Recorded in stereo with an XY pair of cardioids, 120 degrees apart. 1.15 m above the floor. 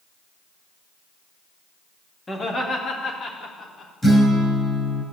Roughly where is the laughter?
Ahead left.